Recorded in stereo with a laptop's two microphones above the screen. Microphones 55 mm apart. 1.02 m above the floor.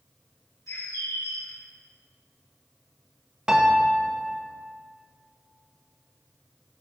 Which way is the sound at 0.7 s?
70° left (ahead or behind).